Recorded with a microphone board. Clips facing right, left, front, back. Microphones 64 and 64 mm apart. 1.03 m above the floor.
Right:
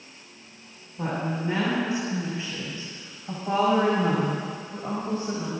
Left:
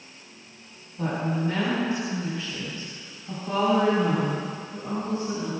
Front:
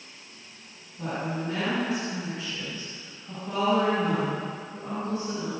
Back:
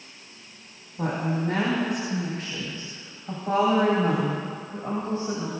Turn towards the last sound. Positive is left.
turn(degrees=-130)